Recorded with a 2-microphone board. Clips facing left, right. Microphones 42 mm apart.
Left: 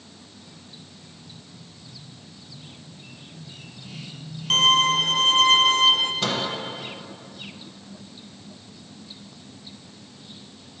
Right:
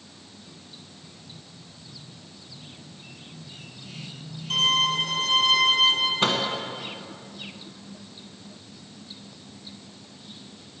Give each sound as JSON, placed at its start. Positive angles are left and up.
{"t": 4.5, "sound": "a violin", "side_deg": 60, "distance_m": 0.6}
{"t": 6.2, "sound": "a microwave", "side_deg": -30, "distance_m": 1.1}